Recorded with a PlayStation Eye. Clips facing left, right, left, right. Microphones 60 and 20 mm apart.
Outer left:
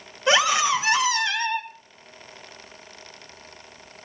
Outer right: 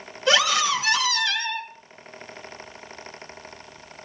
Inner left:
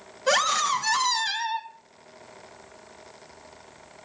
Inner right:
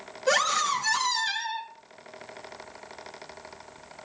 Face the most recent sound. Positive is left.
turn(degrees=20)  # may be behind; listen again after turning